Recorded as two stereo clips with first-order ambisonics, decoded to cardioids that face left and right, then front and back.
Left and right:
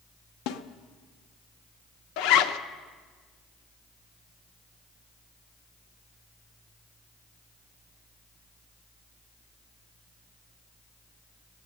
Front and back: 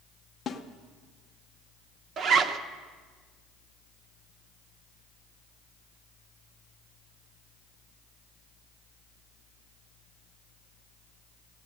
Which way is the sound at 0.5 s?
65° left.